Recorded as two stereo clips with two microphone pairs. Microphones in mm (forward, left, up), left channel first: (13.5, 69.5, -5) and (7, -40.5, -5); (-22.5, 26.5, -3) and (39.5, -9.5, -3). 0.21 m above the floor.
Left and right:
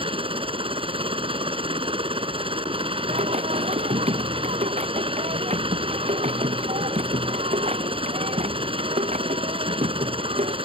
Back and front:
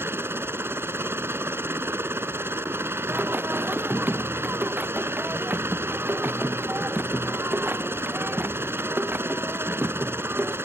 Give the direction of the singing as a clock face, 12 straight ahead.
3 o'clock.